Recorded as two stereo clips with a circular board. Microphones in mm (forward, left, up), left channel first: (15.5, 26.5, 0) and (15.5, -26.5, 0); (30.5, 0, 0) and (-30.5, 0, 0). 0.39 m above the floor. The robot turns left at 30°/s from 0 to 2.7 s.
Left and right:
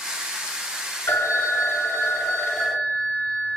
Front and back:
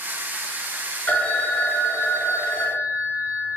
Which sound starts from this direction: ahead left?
A phone ringing, at 1.1 s.